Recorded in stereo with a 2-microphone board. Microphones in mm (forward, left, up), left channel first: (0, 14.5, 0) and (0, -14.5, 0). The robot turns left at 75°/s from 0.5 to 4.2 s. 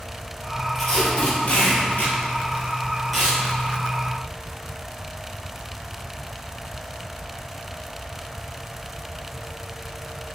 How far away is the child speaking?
I don't hear a child speaking.